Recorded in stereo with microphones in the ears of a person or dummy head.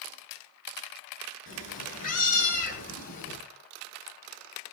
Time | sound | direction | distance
1.5 | a cat meowing | 45° left (ahead or behind) | 6 m